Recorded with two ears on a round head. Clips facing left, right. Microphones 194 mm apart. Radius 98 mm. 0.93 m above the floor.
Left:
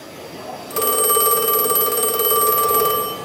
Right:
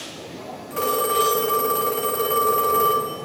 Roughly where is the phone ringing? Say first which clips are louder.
Left 3 dB; left.